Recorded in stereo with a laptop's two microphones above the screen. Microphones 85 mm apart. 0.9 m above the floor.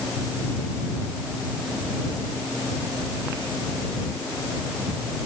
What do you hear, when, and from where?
Only background noise.